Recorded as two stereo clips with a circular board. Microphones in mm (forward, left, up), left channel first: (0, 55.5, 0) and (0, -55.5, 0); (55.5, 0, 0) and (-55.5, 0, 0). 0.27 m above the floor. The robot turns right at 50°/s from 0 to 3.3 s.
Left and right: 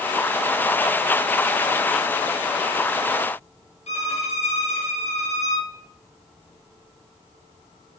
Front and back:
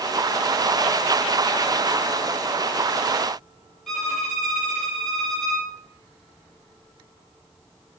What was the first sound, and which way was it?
A violin, 90° left.